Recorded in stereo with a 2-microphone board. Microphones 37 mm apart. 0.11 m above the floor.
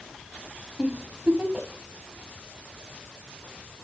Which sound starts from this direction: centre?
A giggle, at 0.8 s.